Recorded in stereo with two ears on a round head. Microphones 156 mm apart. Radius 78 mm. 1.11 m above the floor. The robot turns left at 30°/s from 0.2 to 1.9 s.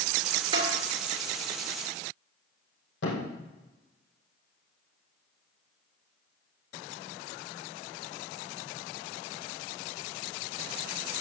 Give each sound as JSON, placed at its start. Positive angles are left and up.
{"t": 0.5, "sound": "a snare drum", "side_deg": -30, "distance_m": 3.0}
{"t": 3.0, "sound": "a thud", "side_deg": 75, "distance_m": 4.0}